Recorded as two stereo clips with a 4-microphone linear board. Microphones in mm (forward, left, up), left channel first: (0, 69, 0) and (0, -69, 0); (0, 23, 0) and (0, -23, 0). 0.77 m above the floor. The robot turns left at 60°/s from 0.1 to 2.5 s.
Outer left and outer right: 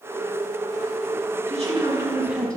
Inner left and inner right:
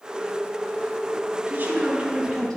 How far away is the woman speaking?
About 5.5 m.